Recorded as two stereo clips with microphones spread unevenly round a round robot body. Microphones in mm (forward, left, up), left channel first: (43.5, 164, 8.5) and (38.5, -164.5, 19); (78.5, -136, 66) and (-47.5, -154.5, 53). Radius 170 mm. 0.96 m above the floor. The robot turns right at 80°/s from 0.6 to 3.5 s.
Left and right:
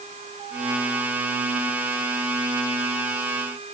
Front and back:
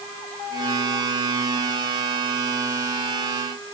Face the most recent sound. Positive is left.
No sound to turn to.